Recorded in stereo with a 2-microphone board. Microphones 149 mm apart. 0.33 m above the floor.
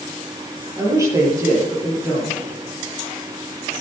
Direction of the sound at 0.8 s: 20° right (ahead or behind).